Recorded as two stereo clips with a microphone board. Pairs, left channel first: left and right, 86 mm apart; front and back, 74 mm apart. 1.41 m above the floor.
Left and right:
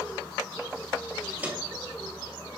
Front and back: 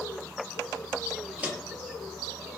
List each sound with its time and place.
1.4 s footsteps: 135° right, 1.5 m; by 2.5 s 70° right, 1.5 m